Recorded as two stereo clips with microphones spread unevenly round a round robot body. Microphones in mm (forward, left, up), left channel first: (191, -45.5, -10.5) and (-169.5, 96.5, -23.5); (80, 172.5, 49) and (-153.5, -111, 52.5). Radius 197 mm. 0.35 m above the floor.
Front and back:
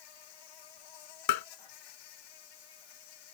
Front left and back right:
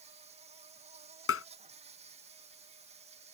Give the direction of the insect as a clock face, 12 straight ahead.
2 o'clock.